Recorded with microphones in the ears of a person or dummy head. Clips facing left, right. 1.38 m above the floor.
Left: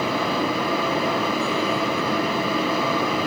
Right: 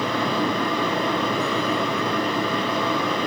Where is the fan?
Centre (ahead or behind), 2.0 m.